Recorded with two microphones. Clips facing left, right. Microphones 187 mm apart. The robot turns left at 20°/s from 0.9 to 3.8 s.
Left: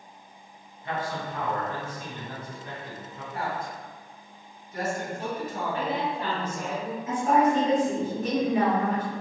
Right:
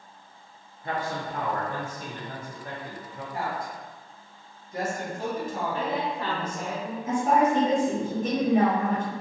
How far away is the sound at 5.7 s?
About 1.0 m.